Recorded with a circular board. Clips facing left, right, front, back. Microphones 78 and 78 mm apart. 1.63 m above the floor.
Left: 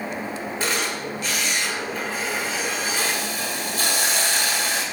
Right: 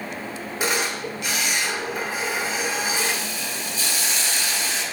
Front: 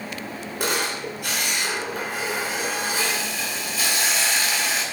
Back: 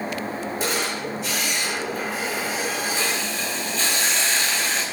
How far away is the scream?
I don't hear a scream.